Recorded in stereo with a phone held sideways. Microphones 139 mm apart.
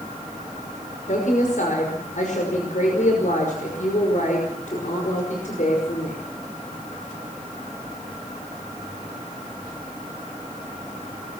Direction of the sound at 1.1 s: 65° left (ahead or behind).